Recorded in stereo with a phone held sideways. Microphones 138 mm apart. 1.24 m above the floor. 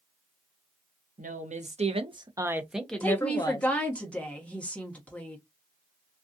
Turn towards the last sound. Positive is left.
turn(degrees=10)  # may be behind; listen again after turning